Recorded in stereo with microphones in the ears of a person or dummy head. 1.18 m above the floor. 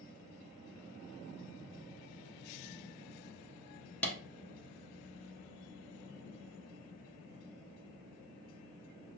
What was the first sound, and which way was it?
A clap, 10° left (ahead or behind).